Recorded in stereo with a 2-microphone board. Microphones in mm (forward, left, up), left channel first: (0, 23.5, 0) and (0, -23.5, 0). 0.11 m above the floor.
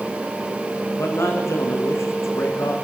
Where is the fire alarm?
No fire alarm in this recording.